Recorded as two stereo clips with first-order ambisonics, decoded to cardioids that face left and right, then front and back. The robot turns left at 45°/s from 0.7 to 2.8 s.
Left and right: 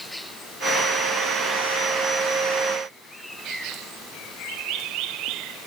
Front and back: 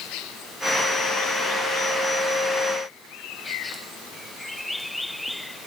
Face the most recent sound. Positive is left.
No sound to turn to.